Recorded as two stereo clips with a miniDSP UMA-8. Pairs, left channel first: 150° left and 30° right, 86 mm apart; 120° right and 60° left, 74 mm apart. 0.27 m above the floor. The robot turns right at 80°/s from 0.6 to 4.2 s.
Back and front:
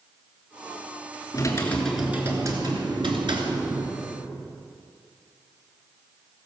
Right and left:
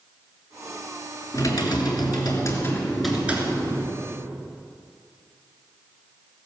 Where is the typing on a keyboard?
165° right, 3 m; by 4.0 s 45° left, 3 m.